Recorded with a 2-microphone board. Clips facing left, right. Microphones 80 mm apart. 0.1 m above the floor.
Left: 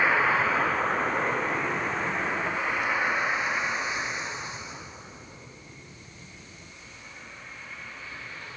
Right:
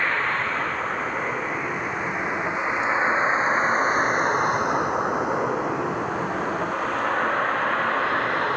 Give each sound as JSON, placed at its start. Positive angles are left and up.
{"t": 0.0, "sound": "a vehicle", "side_deg": 5}